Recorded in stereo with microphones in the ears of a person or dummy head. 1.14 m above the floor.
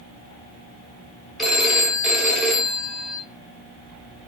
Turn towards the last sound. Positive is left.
turn(degrees=0)  # may be behind; listen again after turning